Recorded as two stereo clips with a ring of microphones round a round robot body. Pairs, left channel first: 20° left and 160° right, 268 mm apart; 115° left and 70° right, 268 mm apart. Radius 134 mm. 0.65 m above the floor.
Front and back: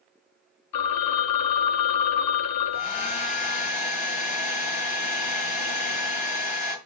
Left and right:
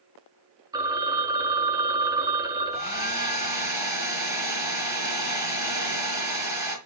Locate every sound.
0.7 s a phone ringing: 10° left, 0.7 m
2.7 s a hair dryer: 10° left, 4.5 m